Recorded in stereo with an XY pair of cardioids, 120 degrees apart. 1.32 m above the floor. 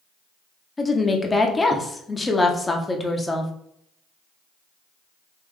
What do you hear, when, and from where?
0.8 s a woman speaking: 15° left, 0.8 m